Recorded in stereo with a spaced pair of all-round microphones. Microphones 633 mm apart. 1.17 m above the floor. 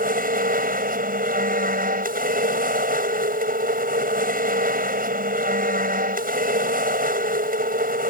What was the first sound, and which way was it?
A machine running, 15° right (ahead or behind).